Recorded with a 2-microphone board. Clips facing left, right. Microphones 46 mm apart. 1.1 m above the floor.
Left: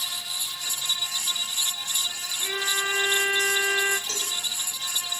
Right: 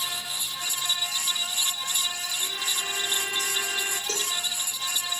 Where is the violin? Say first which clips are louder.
Left 7 dB; 60° left (ahead or behind), 1.2 m.